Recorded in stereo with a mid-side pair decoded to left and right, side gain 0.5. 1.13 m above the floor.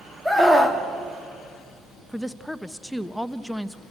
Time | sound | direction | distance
0.2 | a scream | 5° right | 3 m
2.1 | a woman speaking | 5° left | 0.9 m